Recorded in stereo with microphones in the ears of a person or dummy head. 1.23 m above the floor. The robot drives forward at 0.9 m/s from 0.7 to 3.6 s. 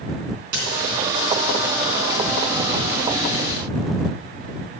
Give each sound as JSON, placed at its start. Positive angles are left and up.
{"t": 0.5, "sound": "a dropped coin", "side_deg": -55, "distance_m": 3.0}